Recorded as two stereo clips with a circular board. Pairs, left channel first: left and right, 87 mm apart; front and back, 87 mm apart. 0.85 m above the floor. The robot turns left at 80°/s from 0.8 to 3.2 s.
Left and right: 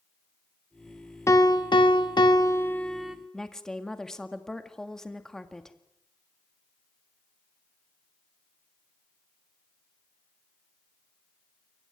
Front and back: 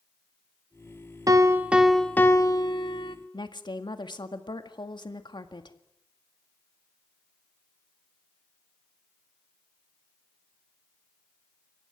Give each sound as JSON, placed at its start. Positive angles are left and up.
{"t": 1.3, "sound": "a piano", "azimuth_deg": 140, "distance_m": 1.3}
{"t": 3.3, "sound": "a woman speaking", "azimuth_deg": 5, "distance_m": 1.8}